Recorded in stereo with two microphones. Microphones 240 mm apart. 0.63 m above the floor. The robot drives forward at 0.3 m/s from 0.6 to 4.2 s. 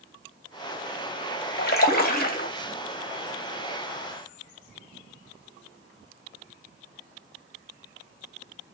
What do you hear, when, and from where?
1.6 s a splash: 40° left (ahead or behind), 0.7 m; by 2.5 s 35° left (ahead or behind), 0.7 m